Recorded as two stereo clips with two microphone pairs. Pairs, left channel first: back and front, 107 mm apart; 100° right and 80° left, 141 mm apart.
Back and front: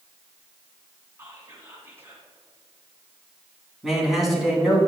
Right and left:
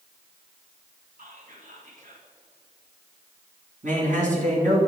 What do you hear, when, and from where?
1.2 s whispering: 65° left, 2.5 m
3.8 s a man speaking: 85° left, 2.5 m